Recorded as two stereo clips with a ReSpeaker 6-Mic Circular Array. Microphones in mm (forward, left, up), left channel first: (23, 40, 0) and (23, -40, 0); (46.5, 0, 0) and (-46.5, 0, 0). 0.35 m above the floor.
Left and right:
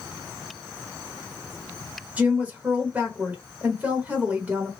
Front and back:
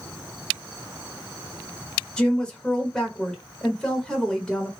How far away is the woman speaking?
About 1.2 m.